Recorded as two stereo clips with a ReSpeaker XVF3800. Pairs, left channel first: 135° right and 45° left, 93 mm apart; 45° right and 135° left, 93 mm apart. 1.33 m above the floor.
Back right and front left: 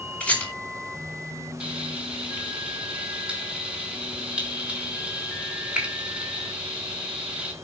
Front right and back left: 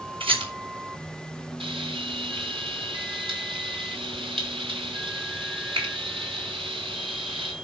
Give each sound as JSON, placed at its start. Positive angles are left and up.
{"t": 0.2, "sound": "a rattle", "azimuth_deg": 145, "distance_m": 5.0}
{"t": 1.6, "sound": "frying", "azimuth_deg": 120, "distance_m": 3.5}